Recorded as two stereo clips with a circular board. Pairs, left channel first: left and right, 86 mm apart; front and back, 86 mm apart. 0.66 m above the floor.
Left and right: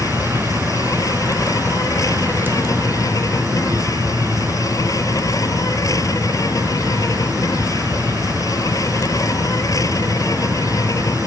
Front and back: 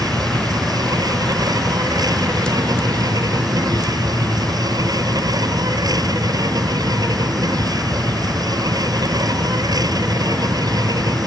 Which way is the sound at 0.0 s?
140° left.